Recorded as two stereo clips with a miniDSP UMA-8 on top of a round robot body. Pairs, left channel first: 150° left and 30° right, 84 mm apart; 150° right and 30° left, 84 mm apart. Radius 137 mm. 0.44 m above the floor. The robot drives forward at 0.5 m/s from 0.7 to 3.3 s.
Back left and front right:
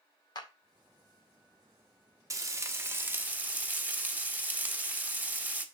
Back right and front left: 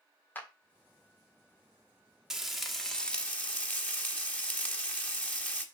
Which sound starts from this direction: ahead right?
Frying, at 2.3 s.